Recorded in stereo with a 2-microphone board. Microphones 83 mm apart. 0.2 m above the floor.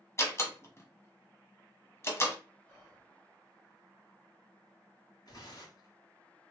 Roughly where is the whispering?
Left.